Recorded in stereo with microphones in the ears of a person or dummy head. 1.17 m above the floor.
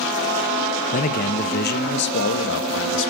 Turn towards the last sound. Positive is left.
turn(degrees=65)  # may be behind; listen again after turning